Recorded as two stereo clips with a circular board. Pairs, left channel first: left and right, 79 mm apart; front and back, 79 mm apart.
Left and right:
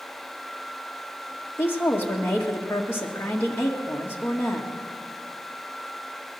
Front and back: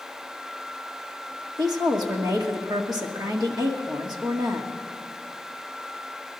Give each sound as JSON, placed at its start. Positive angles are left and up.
{"t": 1.6, "sound": "a woman speaking", "azimuth_deg": 150, "distance_m": 1.8}